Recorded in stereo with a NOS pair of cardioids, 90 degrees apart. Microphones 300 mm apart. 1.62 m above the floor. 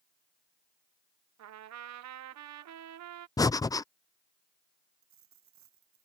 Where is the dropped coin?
65° right.